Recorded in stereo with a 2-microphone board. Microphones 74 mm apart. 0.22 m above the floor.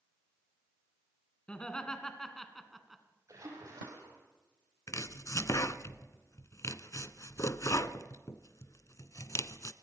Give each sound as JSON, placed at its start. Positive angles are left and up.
{"t": 1.5, "sound": "laughter", "side_deg": 15, "distance_m": 2.5}
{"t": 3.3, "sound": "a splash", "side_deg": -40, "distance_m": 7.5}
{"t": 4.9, "sound": "chopping", "side_deg": 45, "distance_m": 0.8}